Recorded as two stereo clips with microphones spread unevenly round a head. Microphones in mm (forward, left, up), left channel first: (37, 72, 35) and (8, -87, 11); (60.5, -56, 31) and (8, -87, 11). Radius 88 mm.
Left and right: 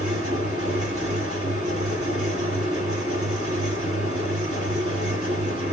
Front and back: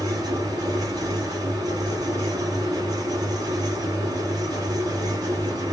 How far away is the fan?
About 2 m.